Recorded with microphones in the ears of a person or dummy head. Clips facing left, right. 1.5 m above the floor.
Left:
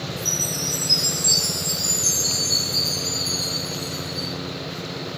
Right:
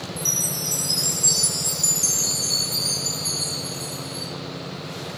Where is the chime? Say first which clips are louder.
Left 2 dB; 50° right (ahead or behind), 0.8 m.